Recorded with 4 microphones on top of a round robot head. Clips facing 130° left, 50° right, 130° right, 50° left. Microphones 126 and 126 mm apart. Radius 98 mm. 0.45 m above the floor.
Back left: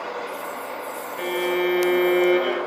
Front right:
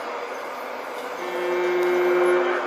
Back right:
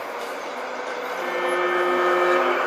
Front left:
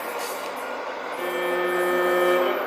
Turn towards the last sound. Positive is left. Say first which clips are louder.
# back left 1 dB, back right 1 dB
turn(degrees=135)